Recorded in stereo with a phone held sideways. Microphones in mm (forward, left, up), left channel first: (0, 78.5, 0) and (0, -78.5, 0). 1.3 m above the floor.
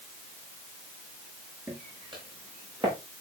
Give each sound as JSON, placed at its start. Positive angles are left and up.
{"t": 1.7, "sound": "footsteps", "side_deg": -25, "distance_m": 7.5}